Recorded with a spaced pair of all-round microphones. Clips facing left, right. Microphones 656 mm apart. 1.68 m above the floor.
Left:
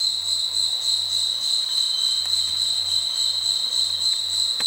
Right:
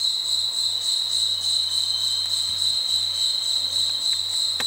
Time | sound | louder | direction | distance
0.0 | an insect | even | 15° left (ahead or behind) | 2.5 m